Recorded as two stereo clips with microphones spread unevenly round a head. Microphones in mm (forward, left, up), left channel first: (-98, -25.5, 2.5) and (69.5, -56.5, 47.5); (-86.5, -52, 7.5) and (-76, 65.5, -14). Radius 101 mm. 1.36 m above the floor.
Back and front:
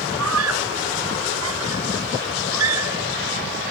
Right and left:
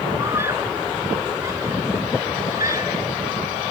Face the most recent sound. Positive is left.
turn(degrees=10)